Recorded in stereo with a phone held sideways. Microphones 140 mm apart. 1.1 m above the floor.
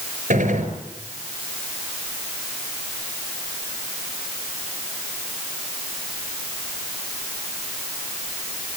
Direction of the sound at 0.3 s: 80° right.